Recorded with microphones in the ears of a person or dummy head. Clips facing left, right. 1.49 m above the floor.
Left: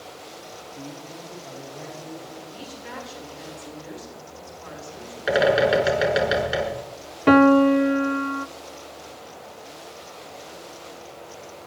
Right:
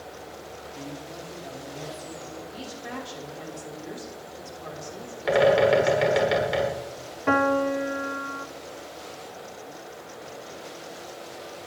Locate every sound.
0.8 s a man speaking: 10° left (ahead or behind), 4 m; by 2.3 s 10° right (ahead or behind), 4.5 m
2.4 s a woman speaking: 75° right (ahead or behind), 5.5 m
5.3 s a bird: 5° left (ahead or behind), 4 m
7.3 s a piano: 50° left (ahead or behind), 0.5 m